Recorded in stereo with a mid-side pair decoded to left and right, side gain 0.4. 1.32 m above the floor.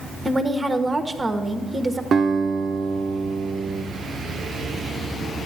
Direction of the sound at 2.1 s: 50° right.